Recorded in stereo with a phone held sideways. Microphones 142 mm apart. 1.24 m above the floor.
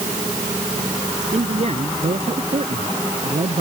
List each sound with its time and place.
1.3 s a man speaking: 55° right (ahead or behind)